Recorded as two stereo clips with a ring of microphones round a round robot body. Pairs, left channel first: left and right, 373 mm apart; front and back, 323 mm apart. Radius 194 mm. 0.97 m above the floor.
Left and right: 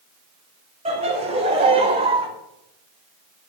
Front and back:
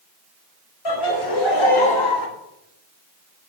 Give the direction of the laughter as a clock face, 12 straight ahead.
1 o'clock.